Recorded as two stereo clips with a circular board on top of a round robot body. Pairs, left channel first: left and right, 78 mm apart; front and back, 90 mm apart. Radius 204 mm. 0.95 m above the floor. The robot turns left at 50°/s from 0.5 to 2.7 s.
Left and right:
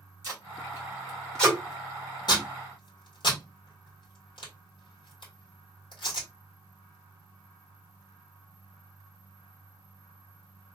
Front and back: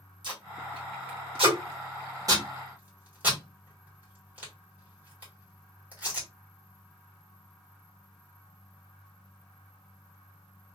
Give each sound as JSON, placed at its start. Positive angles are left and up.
{"t": 0.2, "sound": "tape being pulled", "azimuth_deg": -145, "distance_m": 1.5}